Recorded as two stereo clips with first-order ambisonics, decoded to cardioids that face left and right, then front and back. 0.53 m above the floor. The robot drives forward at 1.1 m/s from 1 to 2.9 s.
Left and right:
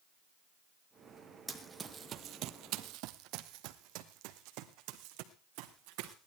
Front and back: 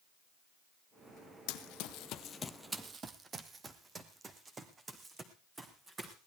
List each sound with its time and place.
1.5 s running footsteps: 5° right, 1.4 m; by 6.1 s 105° right, 2.5 m